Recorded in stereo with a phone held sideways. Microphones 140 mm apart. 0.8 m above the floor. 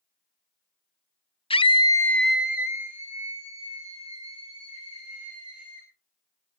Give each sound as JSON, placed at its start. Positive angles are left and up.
{"t": 1.5, "sound": "a scream", "side_deg": 40, "distance_m": 0.6}